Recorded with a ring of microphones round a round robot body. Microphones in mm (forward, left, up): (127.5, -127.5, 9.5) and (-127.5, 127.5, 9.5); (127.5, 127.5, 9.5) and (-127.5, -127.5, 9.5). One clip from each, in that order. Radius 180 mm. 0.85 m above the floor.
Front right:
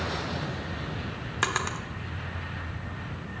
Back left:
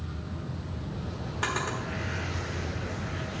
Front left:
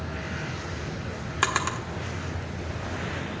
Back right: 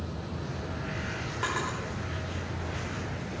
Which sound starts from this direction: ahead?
A drawer, at 1.4 s.